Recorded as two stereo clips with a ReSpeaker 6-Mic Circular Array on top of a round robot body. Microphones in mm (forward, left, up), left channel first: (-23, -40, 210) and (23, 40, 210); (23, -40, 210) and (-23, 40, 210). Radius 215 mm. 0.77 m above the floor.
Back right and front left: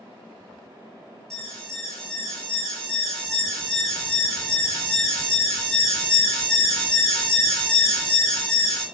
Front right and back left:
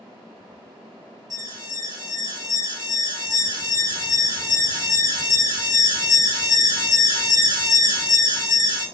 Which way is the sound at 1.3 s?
155° left.